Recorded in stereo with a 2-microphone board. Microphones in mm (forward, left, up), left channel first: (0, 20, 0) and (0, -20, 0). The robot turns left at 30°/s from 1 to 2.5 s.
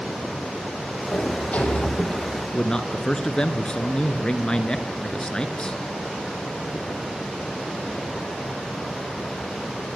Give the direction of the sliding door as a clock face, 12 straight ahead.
10 o'clock.